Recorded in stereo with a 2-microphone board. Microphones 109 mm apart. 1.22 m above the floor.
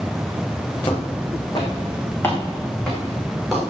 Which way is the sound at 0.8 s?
50° left (ahead or behind).